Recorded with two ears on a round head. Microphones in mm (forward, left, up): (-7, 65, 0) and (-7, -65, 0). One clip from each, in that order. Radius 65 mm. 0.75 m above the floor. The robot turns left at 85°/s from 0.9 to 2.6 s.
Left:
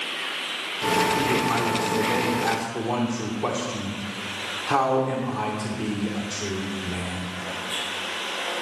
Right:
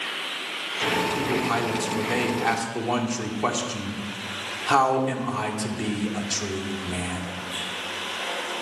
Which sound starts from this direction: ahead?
A man speaking, at 1.2 s.